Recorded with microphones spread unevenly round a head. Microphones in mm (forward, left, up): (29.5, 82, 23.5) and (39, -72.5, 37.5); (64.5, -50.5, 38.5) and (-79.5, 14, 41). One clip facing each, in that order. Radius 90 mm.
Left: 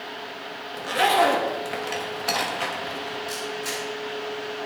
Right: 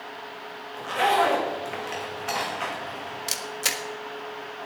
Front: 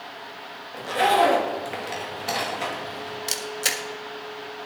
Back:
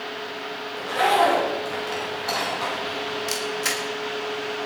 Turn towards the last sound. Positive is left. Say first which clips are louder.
# left 3 dB, back 4 dB
turn(degrees=-80)